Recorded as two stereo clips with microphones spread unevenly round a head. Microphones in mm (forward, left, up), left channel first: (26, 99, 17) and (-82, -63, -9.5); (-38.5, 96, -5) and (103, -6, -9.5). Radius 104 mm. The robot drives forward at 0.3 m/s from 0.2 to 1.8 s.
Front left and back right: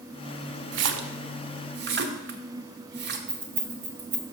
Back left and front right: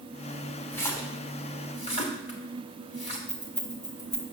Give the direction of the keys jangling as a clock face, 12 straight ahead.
5 o'clock.